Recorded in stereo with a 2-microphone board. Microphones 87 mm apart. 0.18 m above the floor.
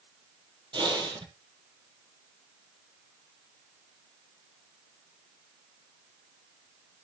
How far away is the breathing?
About 2.5 m.